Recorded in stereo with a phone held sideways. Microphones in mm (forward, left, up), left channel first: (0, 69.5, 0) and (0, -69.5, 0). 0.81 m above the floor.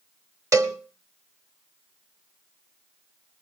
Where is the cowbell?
25° right (ahead or behind), 1.1 m.